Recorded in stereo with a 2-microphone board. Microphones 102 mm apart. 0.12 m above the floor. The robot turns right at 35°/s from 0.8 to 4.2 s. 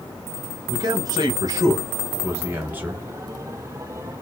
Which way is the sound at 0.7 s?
100° right.